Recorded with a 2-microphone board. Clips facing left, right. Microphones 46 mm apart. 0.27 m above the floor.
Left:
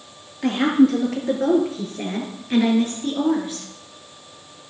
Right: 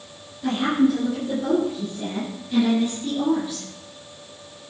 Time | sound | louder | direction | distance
0.4 | a woman speaking | left 3 dB | 75° left (ahead or behind) | 5.5 m